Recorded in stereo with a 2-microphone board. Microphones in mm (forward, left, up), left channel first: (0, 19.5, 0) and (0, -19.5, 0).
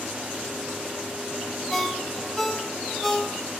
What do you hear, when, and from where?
1.7 s a ringtone: 5° left (ahead or behind), 0.8 m